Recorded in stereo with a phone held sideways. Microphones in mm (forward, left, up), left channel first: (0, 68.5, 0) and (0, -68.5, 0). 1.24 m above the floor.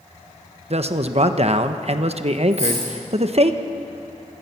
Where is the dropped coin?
50° right (ahead or behind), 7.5 m.